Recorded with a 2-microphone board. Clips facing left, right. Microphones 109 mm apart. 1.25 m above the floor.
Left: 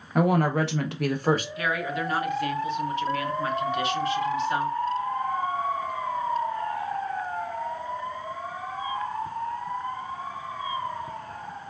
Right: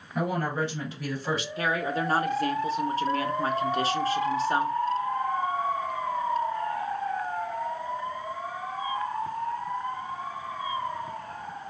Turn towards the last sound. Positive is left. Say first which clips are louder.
# right 1 dB
turn(degrees=-35)  # may be behind; listen again after turning